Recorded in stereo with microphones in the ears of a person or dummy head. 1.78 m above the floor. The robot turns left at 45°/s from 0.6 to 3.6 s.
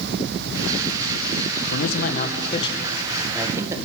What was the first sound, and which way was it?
A man speaking, 75° left.